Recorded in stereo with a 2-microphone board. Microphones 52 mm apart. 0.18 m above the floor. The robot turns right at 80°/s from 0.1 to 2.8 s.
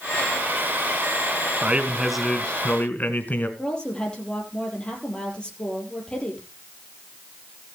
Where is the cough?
I don't hear a cough.